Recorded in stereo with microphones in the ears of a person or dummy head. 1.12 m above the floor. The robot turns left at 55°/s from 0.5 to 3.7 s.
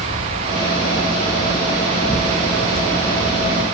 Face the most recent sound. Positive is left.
turn(degrees=-65)